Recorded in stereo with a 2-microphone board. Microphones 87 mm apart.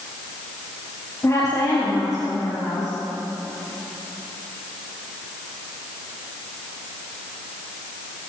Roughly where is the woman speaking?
Left.